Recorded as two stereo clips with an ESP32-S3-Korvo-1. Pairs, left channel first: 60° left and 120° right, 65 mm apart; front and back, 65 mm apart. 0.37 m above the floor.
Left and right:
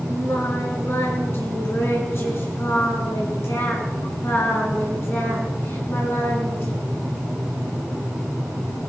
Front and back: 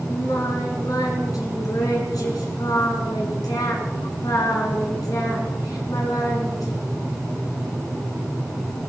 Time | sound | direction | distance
0.1 | singing | 15° left | 5 m